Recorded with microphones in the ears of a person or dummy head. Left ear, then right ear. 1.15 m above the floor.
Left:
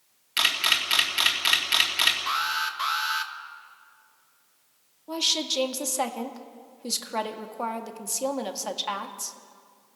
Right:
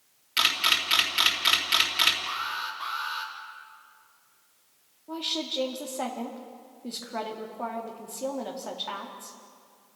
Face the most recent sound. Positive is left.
turn(degrees=85)